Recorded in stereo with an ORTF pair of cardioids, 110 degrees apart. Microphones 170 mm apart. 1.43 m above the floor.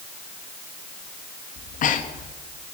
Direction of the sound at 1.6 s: 55° left.